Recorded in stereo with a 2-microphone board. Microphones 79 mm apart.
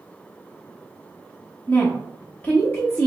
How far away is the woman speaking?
About 0.8 m.